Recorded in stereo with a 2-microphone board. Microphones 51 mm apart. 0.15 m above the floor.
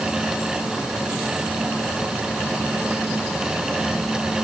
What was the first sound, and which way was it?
Only background noise.